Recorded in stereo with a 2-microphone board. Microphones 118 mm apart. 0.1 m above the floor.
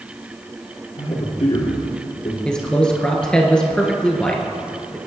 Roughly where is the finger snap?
I don't hear a finger snap.